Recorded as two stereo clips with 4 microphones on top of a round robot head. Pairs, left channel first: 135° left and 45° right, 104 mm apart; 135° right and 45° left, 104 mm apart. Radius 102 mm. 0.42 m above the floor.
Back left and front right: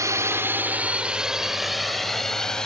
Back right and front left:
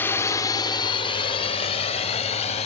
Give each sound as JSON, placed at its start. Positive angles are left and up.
{"t": 0.0, "sound": "a drone", "azimuth_deg": -80}